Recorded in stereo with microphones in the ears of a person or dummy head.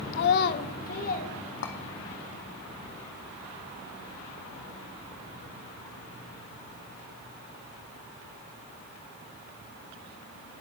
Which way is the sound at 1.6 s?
55° left (ahead or behind).